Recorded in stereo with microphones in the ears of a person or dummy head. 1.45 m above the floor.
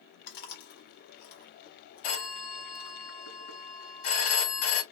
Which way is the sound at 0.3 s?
55° left (ahead or behind).